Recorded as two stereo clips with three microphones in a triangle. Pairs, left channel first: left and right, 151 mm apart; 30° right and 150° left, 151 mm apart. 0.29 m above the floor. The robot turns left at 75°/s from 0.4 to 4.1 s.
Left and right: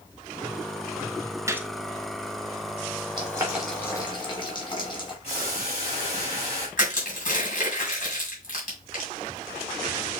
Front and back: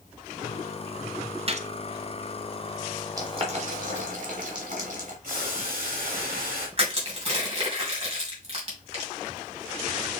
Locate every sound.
1.5 s a gunshot: 160° right, 0.6 m; by 1.7 s 175° right, 0.6 m
3.2 s boiling: 145° right, 1.6 m; by 5.1 s 145° left, 1.6 m
5.2 s boiling: 135° left, 3.5 m
6.8 s crushing: 110° left, 2.5 m